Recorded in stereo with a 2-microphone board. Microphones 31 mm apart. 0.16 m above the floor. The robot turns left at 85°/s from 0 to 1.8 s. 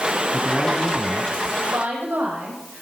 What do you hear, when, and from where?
0.3 s a man speaking: 10° right (ahead or behind), 1.3 m; by 1.4 s 25° left (ahead or behind), 1.3 m
1.7 s a woman speaking: 75° right (ahead or behind), 7.5 m; by 2.8 s 80° right, 7.5 m